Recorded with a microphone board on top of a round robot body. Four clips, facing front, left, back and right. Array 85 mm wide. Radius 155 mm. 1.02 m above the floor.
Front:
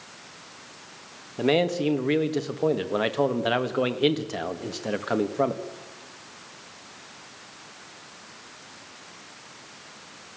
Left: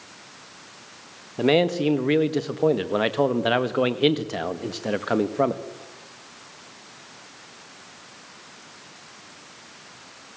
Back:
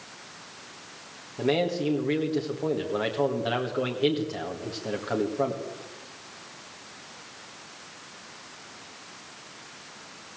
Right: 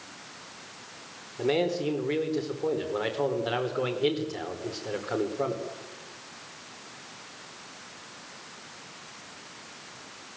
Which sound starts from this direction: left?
A man speaking, at 1.4 s.